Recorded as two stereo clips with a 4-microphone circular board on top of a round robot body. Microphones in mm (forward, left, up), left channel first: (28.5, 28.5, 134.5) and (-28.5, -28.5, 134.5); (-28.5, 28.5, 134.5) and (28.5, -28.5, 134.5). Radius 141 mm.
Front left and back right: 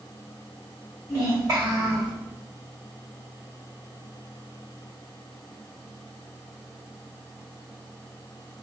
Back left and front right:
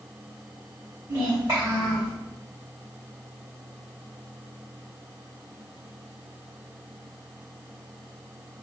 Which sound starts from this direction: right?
A child speaking, at 1.1 s.